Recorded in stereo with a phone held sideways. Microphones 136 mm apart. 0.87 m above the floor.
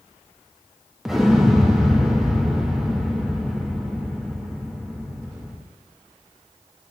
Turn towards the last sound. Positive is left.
turn(degrees=-5)  # may be behind; listen again after turning